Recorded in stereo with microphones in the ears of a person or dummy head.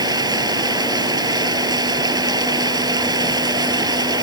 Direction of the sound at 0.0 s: 15° right (ahead or behind).